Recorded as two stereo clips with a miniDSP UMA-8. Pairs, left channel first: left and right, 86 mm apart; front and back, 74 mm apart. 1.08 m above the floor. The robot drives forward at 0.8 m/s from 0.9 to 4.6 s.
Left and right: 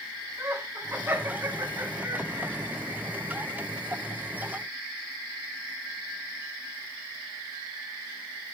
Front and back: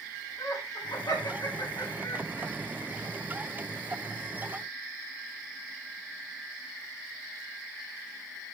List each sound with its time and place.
0.4 s laughter: 35° right, 4 m; by 2.5 s 50° right, 3 m